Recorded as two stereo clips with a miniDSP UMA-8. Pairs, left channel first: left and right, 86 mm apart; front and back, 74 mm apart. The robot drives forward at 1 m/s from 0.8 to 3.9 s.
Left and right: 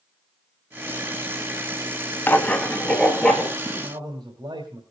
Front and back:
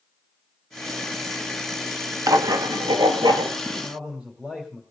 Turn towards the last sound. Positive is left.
turn(degrees=-105)